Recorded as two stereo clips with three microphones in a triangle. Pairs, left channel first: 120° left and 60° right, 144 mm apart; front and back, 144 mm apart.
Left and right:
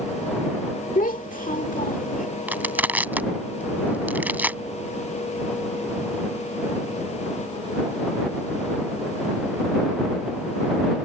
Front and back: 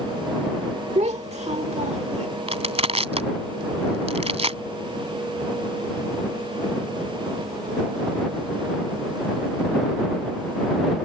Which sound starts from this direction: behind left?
A child speaking, at 0.9 s.